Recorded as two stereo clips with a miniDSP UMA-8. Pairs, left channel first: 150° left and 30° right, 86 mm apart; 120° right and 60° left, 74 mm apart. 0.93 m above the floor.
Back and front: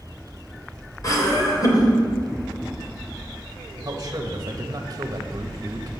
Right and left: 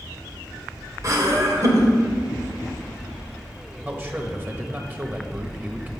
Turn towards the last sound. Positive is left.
turn(degrees=5)